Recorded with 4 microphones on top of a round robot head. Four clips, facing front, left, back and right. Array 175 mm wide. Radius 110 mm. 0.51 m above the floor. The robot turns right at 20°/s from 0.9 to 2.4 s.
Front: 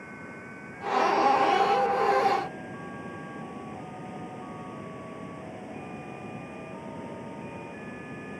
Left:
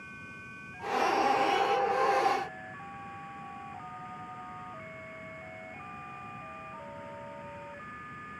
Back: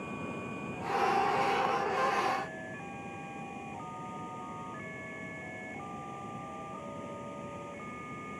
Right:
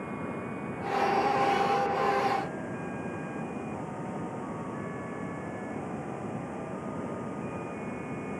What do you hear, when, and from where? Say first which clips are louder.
0.0 s running water: right 12 dB, back 3 dB; 105° right; by 8.4 s 75° right